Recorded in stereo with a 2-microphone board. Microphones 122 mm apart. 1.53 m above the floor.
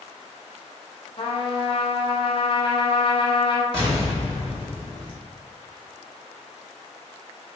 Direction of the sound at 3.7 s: 45° left (ahead or behind).